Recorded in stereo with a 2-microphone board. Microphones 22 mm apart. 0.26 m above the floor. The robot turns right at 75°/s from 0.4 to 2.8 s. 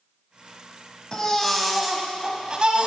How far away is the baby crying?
About 1.2 m.